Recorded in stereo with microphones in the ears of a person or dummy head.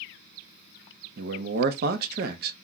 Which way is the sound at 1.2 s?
60° right (ahead or behind).